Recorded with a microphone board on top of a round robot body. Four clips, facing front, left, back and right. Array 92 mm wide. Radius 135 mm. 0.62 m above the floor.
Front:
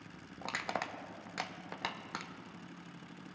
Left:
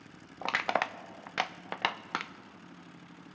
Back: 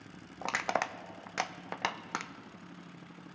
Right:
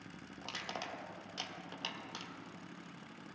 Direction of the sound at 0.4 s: 110° left.